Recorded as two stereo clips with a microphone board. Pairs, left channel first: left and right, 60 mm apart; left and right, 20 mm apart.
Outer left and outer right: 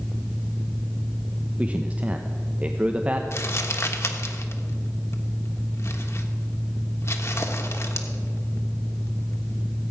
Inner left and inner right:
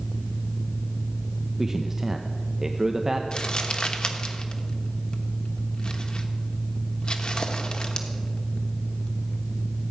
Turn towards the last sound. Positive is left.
turn(degrees=50)  # may be behind; listen again after turning